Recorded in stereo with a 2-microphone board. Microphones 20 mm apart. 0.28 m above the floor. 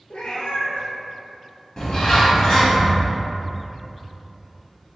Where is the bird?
40° left (ahead or behind), 1.3 m.